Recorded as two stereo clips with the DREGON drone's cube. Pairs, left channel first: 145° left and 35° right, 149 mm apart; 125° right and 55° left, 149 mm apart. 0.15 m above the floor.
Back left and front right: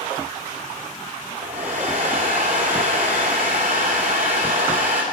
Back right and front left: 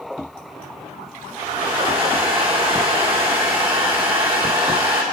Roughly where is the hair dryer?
Ahead.